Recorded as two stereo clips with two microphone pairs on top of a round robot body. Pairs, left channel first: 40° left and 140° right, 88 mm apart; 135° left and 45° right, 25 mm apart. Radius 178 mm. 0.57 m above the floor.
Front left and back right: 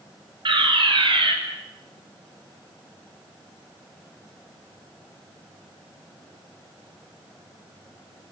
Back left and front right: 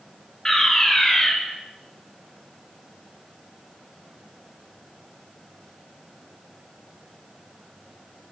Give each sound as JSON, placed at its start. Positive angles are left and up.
{"t": 0.5, "sound": "a fire alarm", "azimuth_deg": -155, "distance_m": 6.0}